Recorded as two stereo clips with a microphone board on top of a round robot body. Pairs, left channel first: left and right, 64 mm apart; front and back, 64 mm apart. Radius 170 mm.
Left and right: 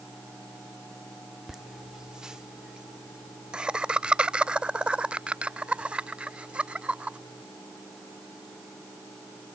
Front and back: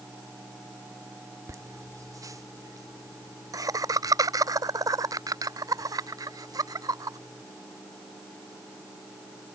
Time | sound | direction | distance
1.5 | laughter | 175° right | ?